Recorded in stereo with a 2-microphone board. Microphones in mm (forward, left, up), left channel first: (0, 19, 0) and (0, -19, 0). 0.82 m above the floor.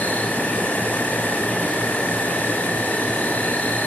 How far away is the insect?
About 4 m.